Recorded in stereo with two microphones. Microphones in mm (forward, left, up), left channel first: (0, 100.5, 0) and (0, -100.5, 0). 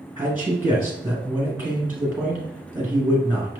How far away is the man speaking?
About 1.5 m.